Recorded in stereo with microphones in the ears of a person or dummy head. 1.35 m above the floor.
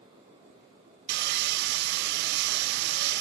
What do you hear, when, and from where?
1.1 s sawing: 65° right (ahead or behind), 0.7 m